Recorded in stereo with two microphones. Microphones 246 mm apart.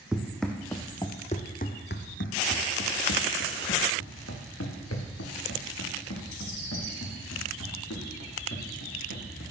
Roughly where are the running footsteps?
Centre.